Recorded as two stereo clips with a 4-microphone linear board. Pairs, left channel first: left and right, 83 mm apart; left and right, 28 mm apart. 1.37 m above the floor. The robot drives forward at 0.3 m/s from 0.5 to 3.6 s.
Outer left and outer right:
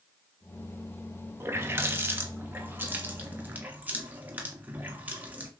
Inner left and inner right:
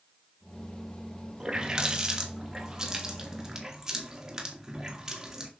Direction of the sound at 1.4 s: 30° right (ahead or behind).